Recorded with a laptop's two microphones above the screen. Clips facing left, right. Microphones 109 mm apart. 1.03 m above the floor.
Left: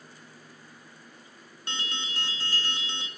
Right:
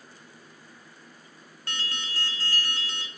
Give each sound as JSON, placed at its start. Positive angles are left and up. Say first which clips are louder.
{"t": 1.7, "sound": "an alarm", "louder": "even", "side_deg": 20, "distance_m": 0.5}